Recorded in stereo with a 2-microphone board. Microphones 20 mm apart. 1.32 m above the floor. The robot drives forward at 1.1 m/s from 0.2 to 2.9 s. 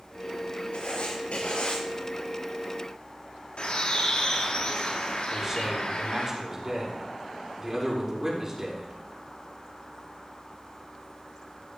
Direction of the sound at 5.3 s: 20° right (ahead or behind).